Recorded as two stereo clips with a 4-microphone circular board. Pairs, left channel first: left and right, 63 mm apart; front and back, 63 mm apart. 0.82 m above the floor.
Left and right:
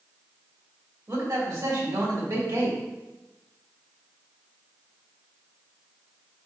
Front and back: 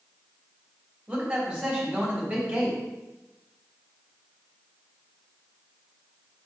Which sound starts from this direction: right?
A man speaking, at 1.1 s.